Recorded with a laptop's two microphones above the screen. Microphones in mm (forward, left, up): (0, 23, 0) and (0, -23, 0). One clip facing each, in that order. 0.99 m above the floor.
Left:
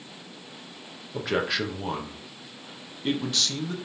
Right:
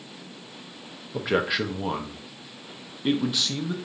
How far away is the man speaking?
About 0.8 m.